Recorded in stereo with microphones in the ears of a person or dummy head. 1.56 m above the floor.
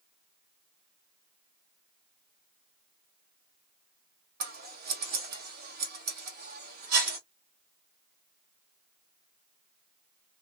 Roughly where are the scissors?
Right.